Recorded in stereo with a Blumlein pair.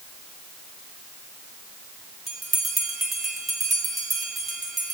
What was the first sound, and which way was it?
A bell, 15° right.